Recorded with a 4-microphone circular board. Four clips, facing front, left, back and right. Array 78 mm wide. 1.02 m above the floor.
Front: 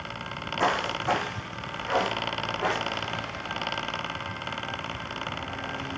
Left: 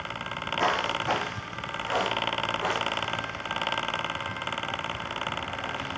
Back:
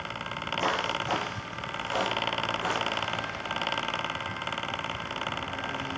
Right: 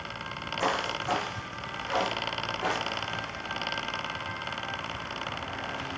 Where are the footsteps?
35° left, 2 m; by 3.2 s 5° right, 2.5 m.